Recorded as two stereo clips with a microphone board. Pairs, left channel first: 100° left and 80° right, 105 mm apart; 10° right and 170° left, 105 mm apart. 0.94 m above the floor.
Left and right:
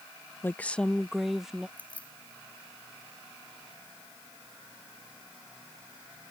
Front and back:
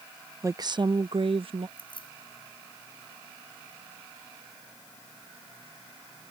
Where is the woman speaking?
140° left; by 1.7 s 165° right.